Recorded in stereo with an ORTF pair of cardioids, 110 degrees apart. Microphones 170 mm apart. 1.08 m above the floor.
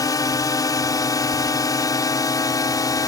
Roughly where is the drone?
Ahead.